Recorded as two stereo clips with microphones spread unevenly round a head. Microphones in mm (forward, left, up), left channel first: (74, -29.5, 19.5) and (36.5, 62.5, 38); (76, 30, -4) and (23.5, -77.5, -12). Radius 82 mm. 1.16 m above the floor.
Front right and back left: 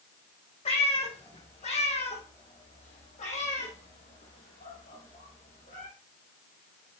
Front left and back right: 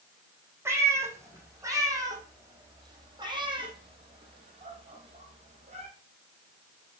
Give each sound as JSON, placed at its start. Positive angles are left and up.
{"t": 0.7, "sound": "a cat meowing", "azimuth_deg": -45, "distance_m": 4.0}